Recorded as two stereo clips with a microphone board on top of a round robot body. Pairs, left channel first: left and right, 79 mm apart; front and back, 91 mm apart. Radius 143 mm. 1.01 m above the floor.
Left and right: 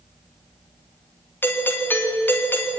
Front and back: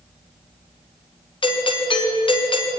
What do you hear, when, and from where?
1.4 s a doorbell: 25° left, 3.5 m